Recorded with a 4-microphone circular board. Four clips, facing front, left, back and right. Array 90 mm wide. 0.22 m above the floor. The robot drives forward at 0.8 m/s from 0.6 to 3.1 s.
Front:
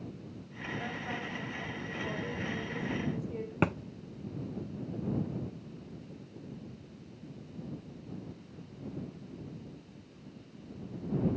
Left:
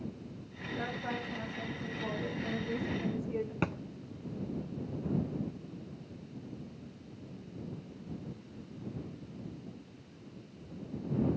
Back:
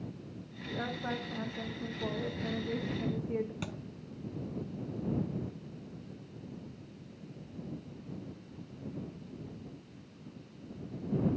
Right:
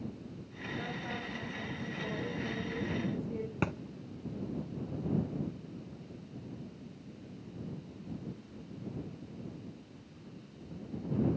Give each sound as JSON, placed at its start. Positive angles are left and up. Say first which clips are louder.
{"t": 0.7, "sound": "a woman speaking", "louder": "left 3 dB, back 2 dB", "azimuth_deg": 165, "distance_m": 9.0}
{"t": 3.6, "sound": "a thud", "louder": "right 1 dB, front 12 dB", "azimuth_deg": 0, "distance_m": 0.7}